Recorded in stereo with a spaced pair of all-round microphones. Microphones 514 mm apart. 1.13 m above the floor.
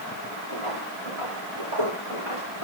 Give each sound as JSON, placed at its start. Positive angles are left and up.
{"t": 0.5, "sound": "footsteps", "side_deg": -80, "distance_m": 5.5}